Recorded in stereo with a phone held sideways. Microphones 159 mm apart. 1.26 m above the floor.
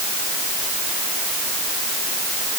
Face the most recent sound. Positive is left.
No sound to turn to.